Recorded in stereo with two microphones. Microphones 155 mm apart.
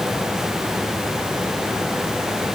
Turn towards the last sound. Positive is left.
No sound to turn to.